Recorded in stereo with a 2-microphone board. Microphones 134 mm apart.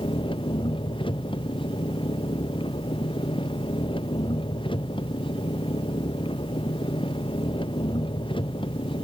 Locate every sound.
0.0 s an engine running: 40° left (ahead or behind)